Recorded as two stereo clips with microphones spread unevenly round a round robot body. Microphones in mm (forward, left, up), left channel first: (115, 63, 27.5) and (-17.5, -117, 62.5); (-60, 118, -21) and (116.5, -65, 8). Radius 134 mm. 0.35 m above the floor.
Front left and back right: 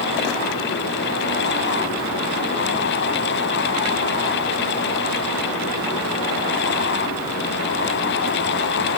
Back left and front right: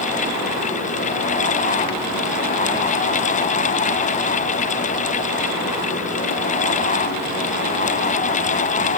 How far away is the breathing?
I don't hear breathing.